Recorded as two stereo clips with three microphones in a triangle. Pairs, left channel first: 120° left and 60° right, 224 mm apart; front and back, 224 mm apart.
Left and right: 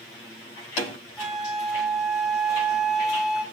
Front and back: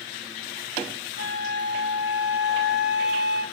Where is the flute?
150° right, 2.0 m.